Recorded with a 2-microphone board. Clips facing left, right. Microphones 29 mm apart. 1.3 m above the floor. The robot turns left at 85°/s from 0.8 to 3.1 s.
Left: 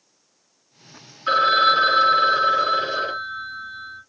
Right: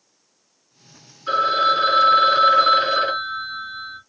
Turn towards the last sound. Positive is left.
turn(degrees=-110)